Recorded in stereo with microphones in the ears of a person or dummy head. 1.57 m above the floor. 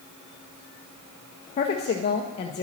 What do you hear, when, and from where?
1.6 s a woman speaking: 25° left (ahead or behind), 0.5 m